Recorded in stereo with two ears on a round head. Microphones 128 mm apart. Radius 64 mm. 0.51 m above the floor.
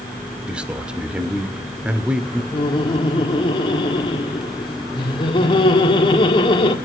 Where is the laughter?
35° left (ahead or behind), 1.6 m.